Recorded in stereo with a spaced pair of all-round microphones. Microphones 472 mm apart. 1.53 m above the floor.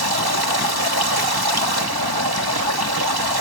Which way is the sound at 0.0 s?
50° right (ahead or behind).